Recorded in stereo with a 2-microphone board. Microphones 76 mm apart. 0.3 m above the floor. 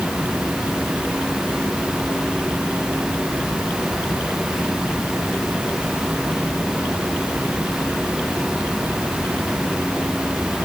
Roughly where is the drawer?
I don't hear a drawer.